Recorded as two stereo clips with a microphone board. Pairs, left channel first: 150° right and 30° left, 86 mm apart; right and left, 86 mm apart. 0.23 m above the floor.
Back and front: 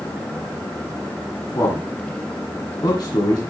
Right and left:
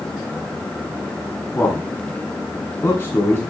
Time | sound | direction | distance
1.6 | a man speaking | 145° right | 1.5 m